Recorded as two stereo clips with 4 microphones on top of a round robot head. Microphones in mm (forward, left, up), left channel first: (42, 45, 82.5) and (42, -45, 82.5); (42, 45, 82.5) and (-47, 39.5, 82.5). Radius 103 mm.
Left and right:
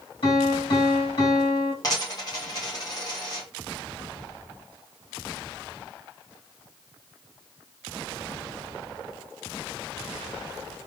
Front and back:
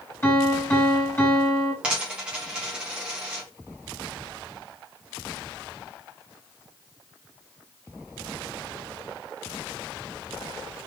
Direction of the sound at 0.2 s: 70° left.